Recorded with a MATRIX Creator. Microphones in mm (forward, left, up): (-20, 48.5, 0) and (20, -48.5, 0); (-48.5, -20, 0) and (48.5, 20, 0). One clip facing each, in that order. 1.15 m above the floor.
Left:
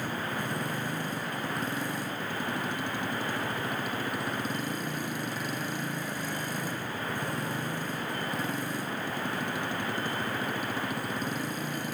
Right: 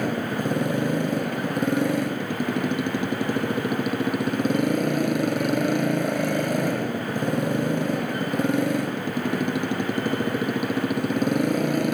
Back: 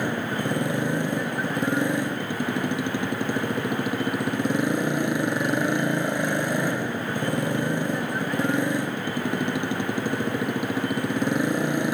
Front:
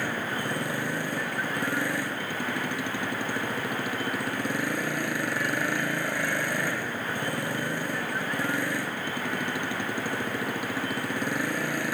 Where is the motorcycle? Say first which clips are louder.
Right 8 dB, back 4 dB; 85° right.